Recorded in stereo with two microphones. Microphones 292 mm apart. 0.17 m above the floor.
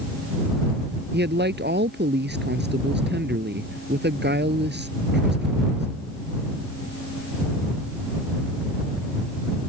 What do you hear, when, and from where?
1.1 s a man speaking: 35° right (ahead or behind)